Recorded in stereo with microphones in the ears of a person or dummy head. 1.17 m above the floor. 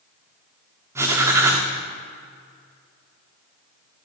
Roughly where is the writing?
Centre.